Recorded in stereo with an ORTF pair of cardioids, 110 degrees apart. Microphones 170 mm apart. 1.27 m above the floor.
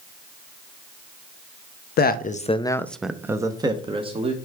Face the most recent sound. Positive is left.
turn(degrees=-35)